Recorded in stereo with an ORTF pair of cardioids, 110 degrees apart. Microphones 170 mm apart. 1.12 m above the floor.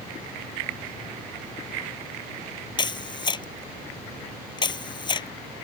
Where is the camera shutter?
25° left.